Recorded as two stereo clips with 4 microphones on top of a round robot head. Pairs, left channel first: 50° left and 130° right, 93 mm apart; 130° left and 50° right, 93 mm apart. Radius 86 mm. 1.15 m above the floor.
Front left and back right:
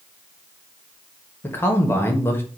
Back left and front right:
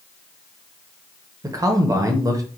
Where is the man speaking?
10° right, 1.1 m.